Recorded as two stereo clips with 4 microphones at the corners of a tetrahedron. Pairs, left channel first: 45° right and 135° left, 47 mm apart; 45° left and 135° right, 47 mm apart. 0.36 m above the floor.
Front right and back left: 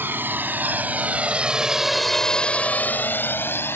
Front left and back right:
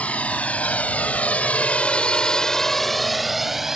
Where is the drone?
100° left; by 3.8 s 55° right.